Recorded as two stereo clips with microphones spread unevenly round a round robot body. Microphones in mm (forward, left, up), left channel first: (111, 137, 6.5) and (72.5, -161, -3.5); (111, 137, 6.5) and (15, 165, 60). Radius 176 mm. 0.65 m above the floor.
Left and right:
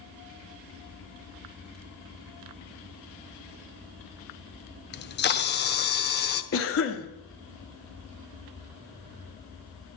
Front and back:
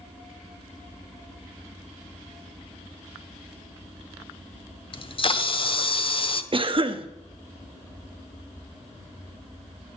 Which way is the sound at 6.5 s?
105° left.